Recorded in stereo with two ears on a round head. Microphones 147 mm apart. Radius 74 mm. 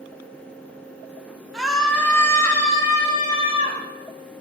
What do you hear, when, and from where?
1.5 s a scream: 5° right (ahead or behind), 1.6 m; by 3.8 s 35° left (ahead or behind), 3.5 m